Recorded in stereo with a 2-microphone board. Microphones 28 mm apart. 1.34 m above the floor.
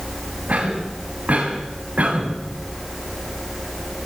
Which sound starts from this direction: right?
A cough, at 0.5 s.